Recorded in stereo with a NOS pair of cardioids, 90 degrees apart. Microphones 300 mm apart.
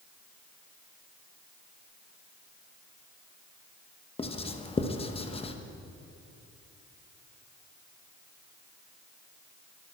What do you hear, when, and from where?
4.2 s writing: 20° left, 0.9 m